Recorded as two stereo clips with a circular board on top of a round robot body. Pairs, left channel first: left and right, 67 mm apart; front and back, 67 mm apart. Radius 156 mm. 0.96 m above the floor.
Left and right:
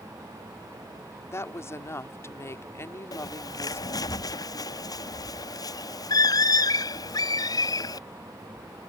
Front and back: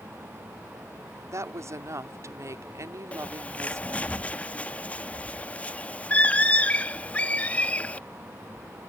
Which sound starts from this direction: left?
A bird, at 3.1 s.